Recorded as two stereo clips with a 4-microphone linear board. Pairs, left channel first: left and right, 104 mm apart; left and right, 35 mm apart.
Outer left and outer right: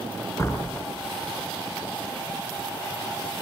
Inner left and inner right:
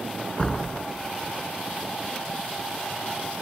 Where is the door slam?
30° left (ahead or behind), 3.5 m.